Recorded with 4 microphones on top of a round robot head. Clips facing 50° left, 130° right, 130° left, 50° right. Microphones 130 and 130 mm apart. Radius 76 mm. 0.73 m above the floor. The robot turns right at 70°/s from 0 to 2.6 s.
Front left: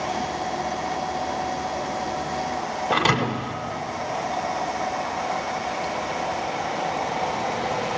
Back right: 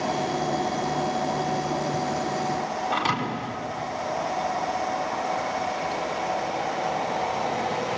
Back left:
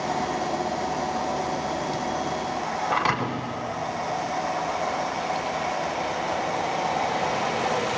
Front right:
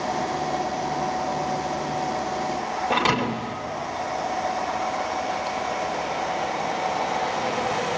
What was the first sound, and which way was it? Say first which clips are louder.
A thud: front left 8 dB, front right 4 dB; 15° left.